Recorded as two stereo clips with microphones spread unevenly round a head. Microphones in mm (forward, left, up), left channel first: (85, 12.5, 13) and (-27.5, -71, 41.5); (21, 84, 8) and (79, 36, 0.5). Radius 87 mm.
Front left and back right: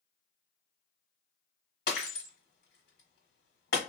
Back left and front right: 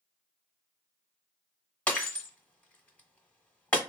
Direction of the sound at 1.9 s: 80° left.